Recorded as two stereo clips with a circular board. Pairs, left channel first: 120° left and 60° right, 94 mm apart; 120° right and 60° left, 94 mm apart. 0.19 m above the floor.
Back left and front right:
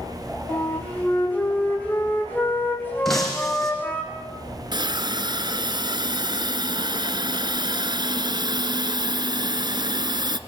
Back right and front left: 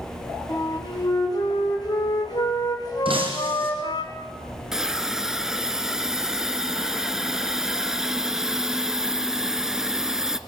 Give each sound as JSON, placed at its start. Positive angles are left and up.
{"t": 0.5, "sound": "a flute", "azimuth_deg": -170, "distance_m": 4.5}
{"t": 3.0, "sound": "breaking glass", "azimuth_deg": 30, "distance_m": 5.0}
{"t": 4.7, "sound": "a hiss", "azimuth_deg": -25, "distance_m": 1.1}